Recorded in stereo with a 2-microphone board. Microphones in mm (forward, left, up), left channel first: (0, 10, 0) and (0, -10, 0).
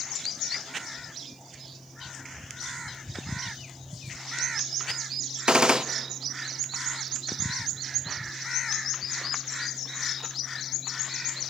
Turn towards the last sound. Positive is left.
turn(degrees=-50)  # may be behind; listen again after turning